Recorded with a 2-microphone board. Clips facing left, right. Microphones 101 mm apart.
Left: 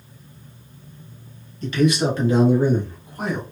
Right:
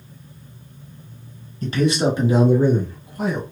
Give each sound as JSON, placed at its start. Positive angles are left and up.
{"t": 1.6, "sound": "a man speaking", "side_deg": -45, "distance_m": 1.4}